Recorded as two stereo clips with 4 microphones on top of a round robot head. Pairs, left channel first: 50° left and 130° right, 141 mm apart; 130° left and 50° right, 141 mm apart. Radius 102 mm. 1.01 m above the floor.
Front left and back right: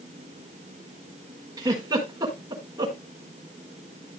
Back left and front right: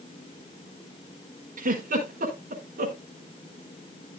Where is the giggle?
70° right, 5 m.